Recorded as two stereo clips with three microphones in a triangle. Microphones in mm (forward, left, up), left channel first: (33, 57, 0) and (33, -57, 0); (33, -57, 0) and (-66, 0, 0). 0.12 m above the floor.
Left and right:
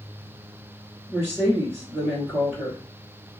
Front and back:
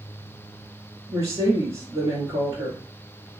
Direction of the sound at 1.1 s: 155° right.